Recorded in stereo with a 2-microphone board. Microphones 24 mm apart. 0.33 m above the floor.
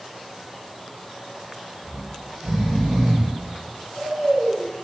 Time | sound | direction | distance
1.8 | snoring | 50° right (ahead or behind) | 1.0 m